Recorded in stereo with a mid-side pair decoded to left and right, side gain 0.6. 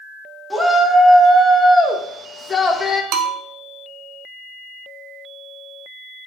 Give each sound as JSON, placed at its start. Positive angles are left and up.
{"t": 0.5, "sound": "a shout", "azimuth_deg": 0, "distance_m": 3.0}
{"t": 3.1, "sound": "a bell", "azimuth_deg": -70, "distance_m": 1.6}